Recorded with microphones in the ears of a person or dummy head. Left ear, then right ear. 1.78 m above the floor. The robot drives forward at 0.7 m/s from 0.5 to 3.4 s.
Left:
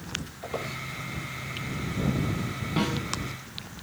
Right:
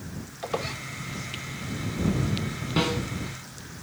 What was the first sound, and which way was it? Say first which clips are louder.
A squeak: right 5 dB; 25° right (ahead or behind).